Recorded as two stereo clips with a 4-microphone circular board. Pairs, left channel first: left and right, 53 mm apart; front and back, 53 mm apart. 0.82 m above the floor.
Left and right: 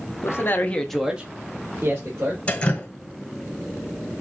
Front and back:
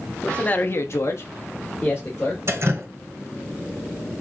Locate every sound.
0.2 s a man speaking: 70° left, 1.2 m; by 2.4 s 50° right, 2.5 m
2.5 s dripping: 155° left, 1.5 m